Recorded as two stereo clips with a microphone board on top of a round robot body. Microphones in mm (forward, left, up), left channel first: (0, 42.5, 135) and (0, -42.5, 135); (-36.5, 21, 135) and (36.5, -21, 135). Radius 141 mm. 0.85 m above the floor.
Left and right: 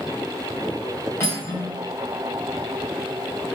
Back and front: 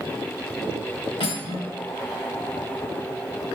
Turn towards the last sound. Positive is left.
turn(degrees=150)